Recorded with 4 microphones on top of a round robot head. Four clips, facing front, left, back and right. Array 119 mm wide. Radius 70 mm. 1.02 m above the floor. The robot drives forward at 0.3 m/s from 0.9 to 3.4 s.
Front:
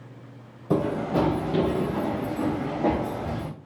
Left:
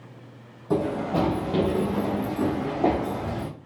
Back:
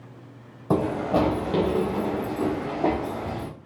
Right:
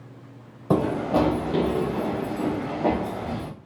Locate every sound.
0.7 s running footsteps: 125° right, 1.3 m; by 3.5 s 110° left, 2 m